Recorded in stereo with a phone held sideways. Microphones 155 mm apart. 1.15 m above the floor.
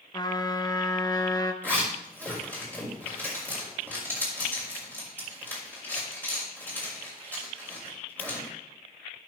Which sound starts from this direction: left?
A trumpet, at 0.1 s.